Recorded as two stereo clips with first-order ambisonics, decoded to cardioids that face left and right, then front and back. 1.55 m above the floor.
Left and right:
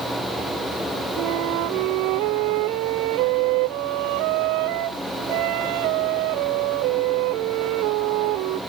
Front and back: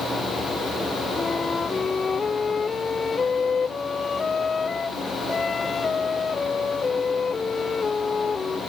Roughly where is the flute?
Right.